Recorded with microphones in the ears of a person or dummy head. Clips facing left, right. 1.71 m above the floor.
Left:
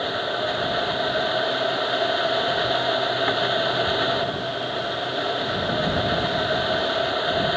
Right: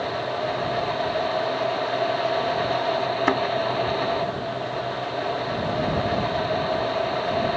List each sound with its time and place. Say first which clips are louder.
3.3 s a thud: right 2 dB; 60° right (ahead or behind)